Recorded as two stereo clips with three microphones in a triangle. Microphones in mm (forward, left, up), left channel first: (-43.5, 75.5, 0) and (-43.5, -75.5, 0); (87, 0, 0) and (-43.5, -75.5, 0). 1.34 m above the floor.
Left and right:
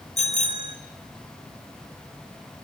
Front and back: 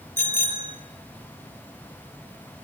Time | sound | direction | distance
0.2 | a bicycle bell | 50° left | 4 m